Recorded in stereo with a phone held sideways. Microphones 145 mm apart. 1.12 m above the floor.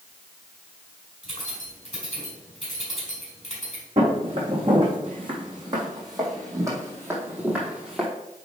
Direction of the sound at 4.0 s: 40° right (ahead or behind).